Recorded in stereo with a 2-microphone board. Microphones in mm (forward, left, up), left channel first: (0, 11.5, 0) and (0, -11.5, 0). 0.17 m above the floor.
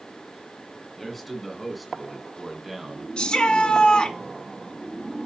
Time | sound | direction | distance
1.0 | a man speaking | 5° left (ahead or behind) | 1.9 m
3.2 | a shout | 40° left (ahead or behind) | 1.9 m